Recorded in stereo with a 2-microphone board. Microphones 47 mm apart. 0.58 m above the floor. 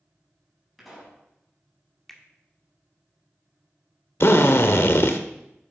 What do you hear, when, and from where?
0.8 s a pop: centre (ahead or behind), 5 m
2.1 s a finger snap: 5° left (ahead or behind), 1.4 m
4.2 s a drill: 60° left (ahead or behind), 1.0 m